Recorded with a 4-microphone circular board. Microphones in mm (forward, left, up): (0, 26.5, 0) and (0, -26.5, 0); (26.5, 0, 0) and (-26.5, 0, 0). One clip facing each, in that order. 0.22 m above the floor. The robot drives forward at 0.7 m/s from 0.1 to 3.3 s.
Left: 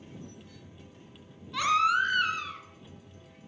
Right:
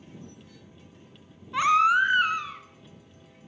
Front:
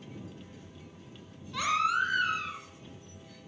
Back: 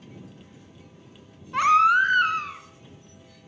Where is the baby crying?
145° right, 1.8 m; by 2.6 s 155° right, 2.5 m.